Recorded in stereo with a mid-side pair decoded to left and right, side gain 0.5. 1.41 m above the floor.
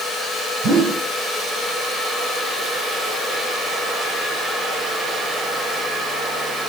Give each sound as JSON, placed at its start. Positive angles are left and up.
{"t": 0.6, "sound": "a whoosh", "azimuth_deg": -65, "distance_m": 3.5}